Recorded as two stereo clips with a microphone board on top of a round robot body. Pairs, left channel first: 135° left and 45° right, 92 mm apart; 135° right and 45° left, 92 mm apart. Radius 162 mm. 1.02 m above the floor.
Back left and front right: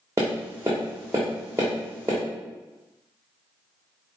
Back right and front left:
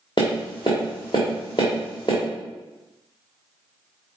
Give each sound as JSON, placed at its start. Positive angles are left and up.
{"t": 0.2, "sound": "tapping", "azimuth_deg": -100, "distance_m": 0.8}